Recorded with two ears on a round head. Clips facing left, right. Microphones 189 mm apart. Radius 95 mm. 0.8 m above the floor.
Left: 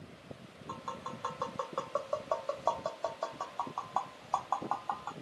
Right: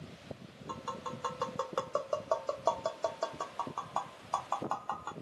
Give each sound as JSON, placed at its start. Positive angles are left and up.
{"t": 0.7, "sound": "tapping", "side_deg": -30, "distance_m": 0.6}